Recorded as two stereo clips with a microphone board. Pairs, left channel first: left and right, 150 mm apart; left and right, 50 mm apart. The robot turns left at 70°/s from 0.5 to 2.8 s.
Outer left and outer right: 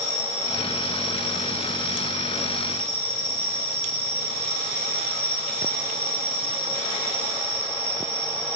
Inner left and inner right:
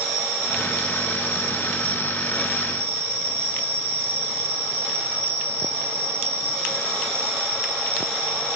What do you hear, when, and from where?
0.0 s an insect: 175° left, 7 m; by 8.6 s 15° left, 7 m